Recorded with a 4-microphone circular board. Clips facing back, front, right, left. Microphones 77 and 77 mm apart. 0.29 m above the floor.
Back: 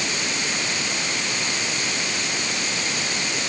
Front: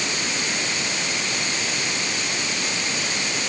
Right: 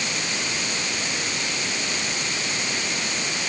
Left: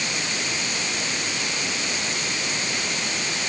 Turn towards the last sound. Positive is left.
No sound to turn to.